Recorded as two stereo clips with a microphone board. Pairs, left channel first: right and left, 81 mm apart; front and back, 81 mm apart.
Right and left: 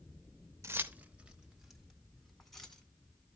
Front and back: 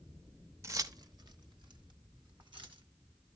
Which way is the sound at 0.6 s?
135° left.